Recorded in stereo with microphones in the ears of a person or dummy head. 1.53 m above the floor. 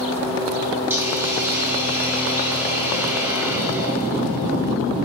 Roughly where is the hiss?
Centre.